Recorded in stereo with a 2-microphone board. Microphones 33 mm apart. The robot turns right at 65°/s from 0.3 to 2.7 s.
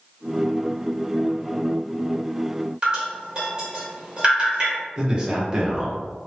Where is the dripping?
30° right (ahead or behind), 1.0 m.